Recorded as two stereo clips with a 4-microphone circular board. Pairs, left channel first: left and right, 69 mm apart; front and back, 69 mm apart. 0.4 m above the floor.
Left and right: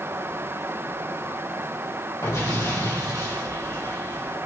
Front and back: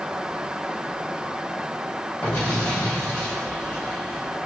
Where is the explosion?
65° left, 2.5 m.